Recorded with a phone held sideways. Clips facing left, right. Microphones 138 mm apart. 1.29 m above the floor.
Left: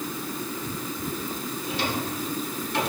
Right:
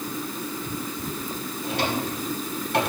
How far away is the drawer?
About 3 m.